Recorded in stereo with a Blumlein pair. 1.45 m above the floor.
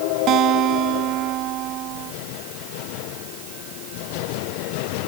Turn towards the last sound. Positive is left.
turn(degrees=-35)